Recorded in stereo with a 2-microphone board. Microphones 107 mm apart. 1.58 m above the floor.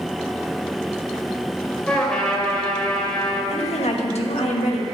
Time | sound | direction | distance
1.9 | a trumpet | 10° left (ahead or behind) | 2 m
3.5 | a woman speaking | 85° left | 1.4 m